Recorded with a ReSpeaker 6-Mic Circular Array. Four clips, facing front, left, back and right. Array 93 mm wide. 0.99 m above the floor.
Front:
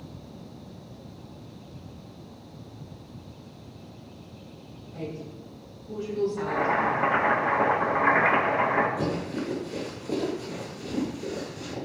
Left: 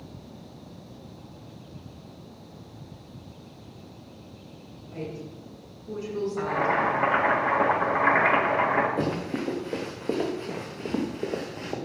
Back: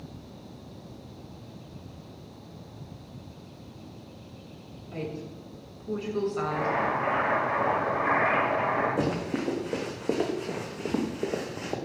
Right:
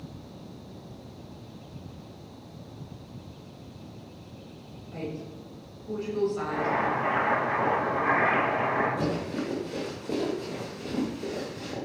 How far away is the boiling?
About 4 m.